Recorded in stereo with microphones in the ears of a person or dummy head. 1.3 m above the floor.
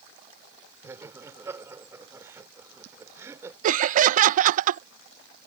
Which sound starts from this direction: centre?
Laughter, at 0.8 s.